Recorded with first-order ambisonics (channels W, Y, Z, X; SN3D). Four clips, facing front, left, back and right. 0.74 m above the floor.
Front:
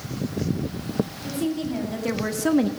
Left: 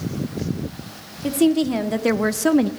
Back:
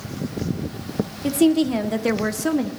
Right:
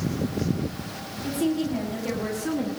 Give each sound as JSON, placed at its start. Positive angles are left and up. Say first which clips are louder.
{"t": 1.2, "sound": "a woman speaking", "louder": "left 8 dB, back 9 dB", "azimuth_deg": 140, "distance_m": 1.9}